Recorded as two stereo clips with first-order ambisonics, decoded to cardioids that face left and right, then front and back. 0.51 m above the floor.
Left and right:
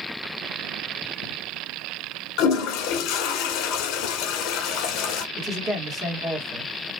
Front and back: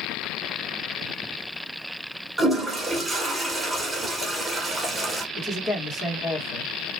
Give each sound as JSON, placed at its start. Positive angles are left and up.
{"t": 2.4, "sound": "a toilet flushing", "azimuth_deg": 100, "distance_m": 0.8}
{"t": 5.3, "sound": "a man speaking", "azimuth_deg": -35, "distance_m": 1.1}